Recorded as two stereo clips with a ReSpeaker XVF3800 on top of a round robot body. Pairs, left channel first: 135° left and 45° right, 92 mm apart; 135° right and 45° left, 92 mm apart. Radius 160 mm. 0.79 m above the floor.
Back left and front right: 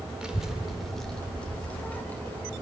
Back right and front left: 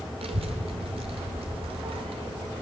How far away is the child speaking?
About 2 m.